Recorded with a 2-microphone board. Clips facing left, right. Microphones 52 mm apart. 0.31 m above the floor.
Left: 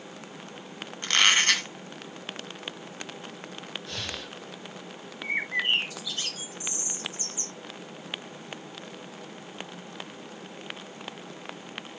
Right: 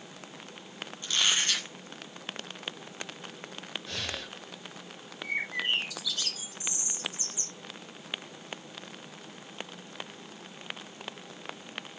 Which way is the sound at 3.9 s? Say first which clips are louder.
Right 1 dB; 5° right (ahead or behind).